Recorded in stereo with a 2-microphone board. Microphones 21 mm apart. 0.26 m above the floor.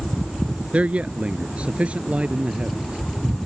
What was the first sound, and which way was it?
A man speaking, 70° right (ahead or behind).